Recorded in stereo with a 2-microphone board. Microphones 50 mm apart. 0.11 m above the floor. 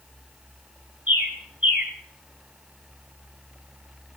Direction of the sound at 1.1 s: 30° right (ahead or behind).